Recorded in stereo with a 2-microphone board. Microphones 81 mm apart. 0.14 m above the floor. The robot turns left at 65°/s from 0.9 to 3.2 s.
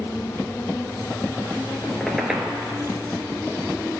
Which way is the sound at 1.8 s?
20° left (ahead or behind).